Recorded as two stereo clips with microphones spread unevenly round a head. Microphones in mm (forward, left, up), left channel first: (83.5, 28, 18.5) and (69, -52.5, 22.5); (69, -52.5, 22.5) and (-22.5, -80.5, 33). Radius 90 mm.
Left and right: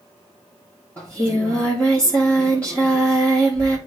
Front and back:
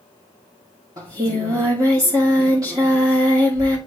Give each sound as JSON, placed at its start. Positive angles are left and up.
{"t": 1.0, "sound": "singing", "azimuth_deg": 155, "distance_m": 1.6}